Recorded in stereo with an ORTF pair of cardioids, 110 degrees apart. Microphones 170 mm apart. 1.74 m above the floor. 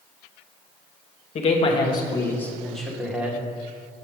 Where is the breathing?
I don't hear breathing.